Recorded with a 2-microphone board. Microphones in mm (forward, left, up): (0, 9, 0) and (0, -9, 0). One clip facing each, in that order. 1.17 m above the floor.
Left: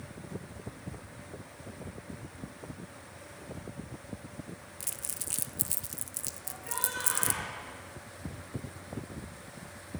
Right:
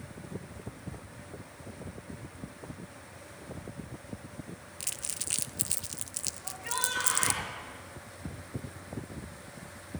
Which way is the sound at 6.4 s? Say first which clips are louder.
Right 4 dB; 60° right (ahead or behind).